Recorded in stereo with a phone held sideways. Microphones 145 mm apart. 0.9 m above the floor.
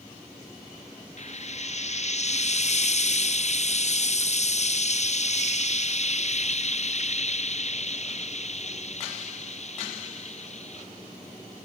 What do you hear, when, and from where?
1.2 s frying: 50° left (ahead or behind), 0.7 m